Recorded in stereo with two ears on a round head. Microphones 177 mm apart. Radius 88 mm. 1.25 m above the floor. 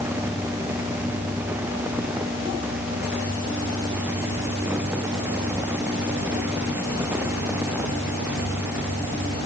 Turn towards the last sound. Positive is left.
No sound to turn to.